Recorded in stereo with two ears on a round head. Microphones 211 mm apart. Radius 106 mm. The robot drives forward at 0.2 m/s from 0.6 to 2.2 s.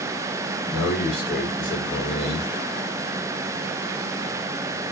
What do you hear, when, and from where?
0.7 s a man speaking: 5° left (ahead or behind), 2.5 m